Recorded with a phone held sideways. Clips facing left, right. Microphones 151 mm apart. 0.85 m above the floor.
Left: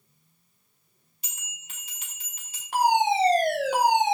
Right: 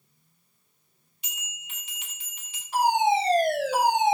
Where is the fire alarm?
65° left (ahead or behind), 3.5 m.